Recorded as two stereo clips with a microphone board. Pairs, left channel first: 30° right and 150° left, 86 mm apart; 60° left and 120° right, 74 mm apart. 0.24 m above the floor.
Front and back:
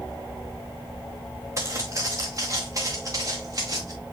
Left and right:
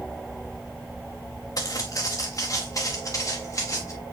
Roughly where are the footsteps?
Left.